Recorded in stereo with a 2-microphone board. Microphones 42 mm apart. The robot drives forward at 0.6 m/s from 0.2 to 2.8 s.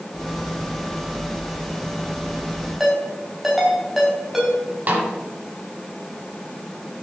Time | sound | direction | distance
2.8 | a ringtone | 5° right (ahead or behind) | 4 m
4.9 | a snare drum | 45° right (ahead or behind) | 2.5 m